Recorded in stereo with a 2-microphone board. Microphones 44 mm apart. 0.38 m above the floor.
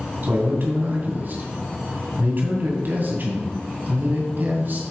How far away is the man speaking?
About 2.5 m.